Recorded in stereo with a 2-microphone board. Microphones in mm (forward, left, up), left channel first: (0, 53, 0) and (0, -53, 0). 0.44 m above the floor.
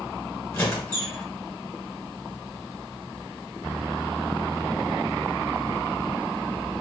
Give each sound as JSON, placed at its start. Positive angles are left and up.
{"t": 0.5, "sound": "a squeak", "side_deg": 20, "distance_m": 1.3}